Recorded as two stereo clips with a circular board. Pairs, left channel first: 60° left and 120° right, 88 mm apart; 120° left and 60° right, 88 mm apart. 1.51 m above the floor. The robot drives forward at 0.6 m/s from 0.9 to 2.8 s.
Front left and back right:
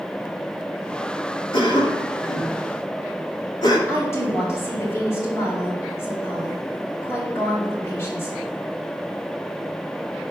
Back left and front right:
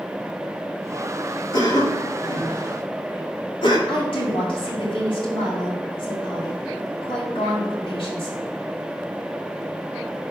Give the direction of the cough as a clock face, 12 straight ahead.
9 o'clock.